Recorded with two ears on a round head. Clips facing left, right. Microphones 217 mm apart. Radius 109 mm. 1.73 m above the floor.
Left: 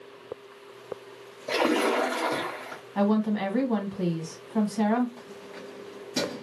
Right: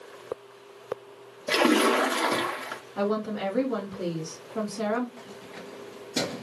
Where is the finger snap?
No finger snap in this recording.